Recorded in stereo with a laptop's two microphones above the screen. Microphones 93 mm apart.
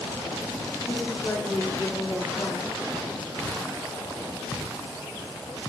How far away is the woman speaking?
About 0.5 m.